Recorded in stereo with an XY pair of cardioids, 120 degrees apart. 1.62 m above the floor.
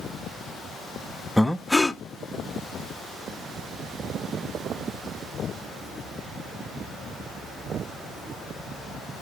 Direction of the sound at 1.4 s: 10° left.